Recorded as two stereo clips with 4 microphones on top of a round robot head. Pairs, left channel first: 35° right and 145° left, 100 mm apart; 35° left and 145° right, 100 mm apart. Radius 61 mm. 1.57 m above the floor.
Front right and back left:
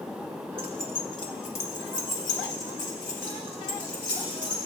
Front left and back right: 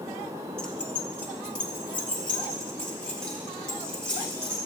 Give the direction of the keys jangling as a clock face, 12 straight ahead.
8 o'clock.